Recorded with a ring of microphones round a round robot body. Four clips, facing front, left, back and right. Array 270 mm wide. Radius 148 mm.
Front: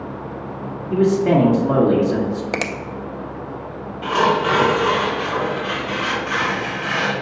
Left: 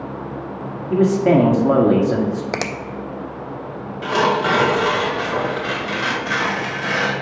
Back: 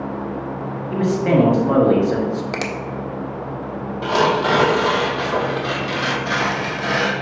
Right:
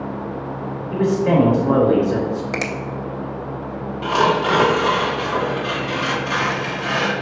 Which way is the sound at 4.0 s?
160° left.